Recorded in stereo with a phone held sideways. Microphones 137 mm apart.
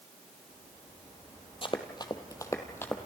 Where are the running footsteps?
40° left (ahead or behind), 1.6 m; by 3.0 s 15° left (ahead or behind), 1.8 m.